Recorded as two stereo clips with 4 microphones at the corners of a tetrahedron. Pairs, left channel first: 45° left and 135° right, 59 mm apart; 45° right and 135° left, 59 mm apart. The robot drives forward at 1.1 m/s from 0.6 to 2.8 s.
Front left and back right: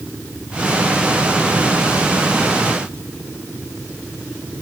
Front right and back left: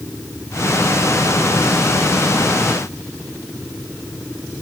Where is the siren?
I don't hear a siren.